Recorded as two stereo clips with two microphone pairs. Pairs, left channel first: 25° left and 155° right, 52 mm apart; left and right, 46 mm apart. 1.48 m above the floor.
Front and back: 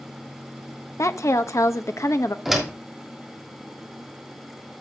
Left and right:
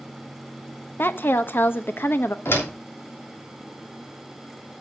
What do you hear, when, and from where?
1.0 s a woman speaking: 45° left, 0.8 m
2.5 s a door slam: 120° left, 3 m